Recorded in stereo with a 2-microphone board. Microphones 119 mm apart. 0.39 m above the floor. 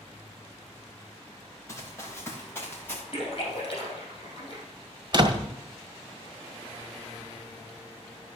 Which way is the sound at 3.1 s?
45° left (ahead or behind).